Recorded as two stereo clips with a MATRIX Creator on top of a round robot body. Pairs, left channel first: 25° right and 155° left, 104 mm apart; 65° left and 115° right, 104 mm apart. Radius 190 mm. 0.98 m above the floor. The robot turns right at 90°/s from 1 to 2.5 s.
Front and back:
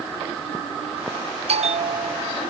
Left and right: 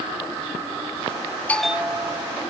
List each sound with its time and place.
1.5 s a bell: 145° left; by 2.4 s 135° right